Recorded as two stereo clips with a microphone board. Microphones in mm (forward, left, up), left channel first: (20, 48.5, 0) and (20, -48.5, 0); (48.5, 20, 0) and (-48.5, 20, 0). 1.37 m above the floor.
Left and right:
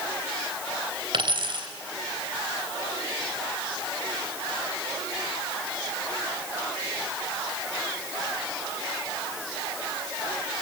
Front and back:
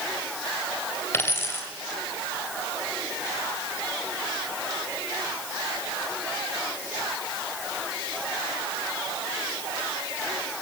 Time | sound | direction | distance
1.1 | a dropped coin | 65° right | 3 m